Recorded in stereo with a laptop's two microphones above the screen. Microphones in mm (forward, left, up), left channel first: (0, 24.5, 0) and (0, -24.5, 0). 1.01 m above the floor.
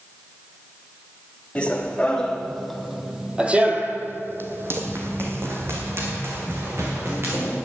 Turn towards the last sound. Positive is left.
turn(degrees=-50)  # may be behind; listen again after turning